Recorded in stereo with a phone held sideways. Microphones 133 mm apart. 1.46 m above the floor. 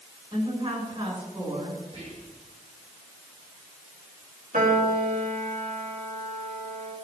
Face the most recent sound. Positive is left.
turn(degrees=-75)  # may be behind; listen again after turning